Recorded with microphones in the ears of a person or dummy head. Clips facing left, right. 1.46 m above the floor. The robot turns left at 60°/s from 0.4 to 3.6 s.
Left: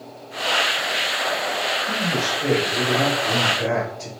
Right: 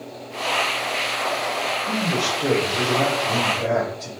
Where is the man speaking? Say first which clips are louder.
Right 3 dB; 130° right, 4 m; by 4.1 s 125° left, 4 m.